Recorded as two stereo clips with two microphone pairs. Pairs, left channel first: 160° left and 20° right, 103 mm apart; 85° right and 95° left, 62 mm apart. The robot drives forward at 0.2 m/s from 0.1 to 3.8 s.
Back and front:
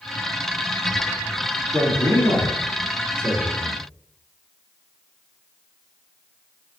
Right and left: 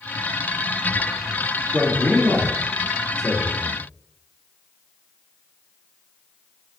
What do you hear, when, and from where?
1.7 s a man speaking: 135° right, 1.8 m; by 3.8 s 145° right, 2 m